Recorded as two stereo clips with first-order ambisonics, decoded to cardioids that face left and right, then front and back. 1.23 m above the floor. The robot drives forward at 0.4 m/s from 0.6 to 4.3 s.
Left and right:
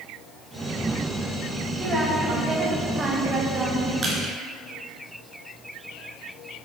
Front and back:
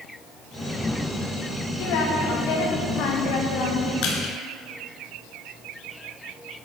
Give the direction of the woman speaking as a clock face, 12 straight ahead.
1 o'clock.